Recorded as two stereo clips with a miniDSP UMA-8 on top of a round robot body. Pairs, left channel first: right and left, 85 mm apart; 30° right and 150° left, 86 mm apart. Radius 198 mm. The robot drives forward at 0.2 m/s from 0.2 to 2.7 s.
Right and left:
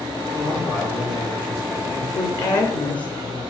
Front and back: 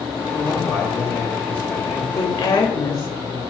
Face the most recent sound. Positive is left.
turn(degrees=-80)